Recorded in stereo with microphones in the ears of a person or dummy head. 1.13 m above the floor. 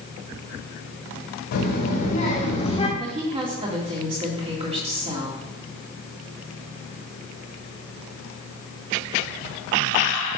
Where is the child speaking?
60° left (ahead or behind), 1.7 m; by 2.9 s 30° left (ahead or behind), 1.4 m.